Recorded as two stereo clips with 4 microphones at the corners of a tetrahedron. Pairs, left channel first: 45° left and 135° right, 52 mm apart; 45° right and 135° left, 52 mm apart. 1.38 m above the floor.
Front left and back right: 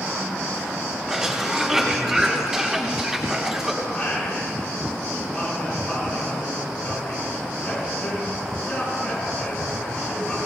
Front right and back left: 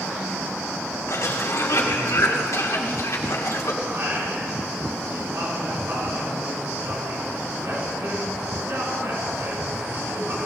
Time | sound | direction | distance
1.1 | a cough | 50° right | 3 m
3.8 | singing | 110° left | 5 m